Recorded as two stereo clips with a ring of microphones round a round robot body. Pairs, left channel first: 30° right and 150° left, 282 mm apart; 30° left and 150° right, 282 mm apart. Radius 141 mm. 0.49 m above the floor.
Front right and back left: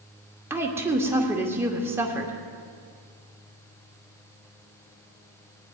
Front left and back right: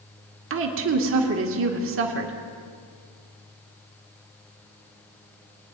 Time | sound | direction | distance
0.5 | a woman speaking | 130° right | 1.1 m